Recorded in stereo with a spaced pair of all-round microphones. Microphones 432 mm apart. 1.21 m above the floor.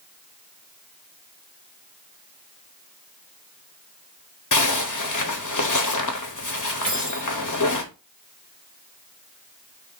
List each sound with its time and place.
4.5 s a zipper: 45° left (ahead or behind), 0.8 m
6.8 s keys jangling: 30° right (ahead or behind), 3.5 m